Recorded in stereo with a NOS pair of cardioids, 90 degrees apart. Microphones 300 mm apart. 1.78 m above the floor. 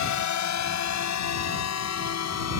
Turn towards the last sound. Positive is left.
turn(degrees=55)